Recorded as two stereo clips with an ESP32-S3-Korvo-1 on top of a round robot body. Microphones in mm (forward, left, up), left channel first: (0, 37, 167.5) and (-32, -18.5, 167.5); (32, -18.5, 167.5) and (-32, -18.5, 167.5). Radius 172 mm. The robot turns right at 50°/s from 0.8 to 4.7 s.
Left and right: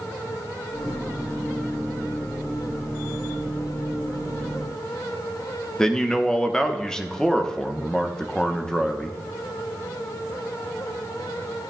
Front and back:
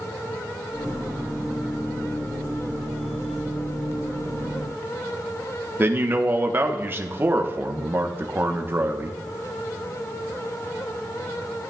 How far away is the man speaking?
About 1.1 m.